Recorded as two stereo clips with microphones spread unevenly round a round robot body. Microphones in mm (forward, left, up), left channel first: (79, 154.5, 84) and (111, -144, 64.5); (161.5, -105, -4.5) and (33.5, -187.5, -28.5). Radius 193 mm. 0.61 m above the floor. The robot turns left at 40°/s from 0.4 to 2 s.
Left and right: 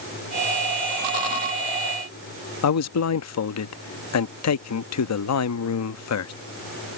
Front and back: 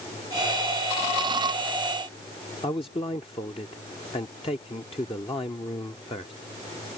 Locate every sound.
2.6 s a man speaking: 100° left